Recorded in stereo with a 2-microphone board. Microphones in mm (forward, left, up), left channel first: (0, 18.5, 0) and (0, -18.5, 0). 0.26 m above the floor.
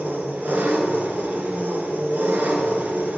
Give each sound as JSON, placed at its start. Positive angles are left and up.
{"t": 0.0, "sound": "an engine running", "side_deg": -60, "distance_m": 1.6}